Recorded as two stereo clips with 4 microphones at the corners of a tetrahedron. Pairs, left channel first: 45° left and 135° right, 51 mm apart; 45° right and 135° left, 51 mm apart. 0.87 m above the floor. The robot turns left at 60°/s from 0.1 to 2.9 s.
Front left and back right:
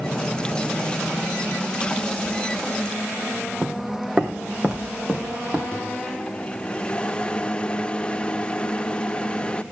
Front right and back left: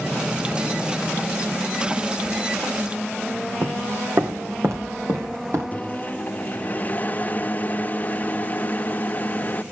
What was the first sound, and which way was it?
Footsteps, 155° left.